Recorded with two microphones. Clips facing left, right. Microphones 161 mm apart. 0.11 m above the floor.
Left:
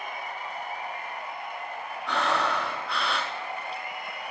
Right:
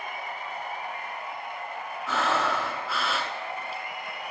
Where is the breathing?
5° right (ahead or behind), 1.2 m.